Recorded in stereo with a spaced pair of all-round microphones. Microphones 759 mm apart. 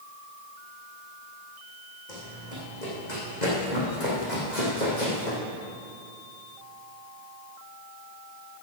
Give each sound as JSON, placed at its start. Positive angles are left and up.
{"t": 2.1, "sound": "running footsteps", "side_deg": 65, "distance_m": 5.0}